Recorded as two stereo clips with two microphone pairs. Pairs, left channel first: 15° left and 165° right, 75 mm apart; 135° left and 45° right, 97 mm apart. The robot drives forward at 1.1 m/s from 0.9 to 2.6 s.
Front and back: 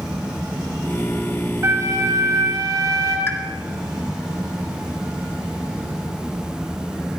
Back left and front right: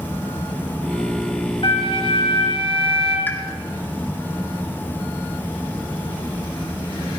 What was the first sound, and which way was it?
A flute, 150° left.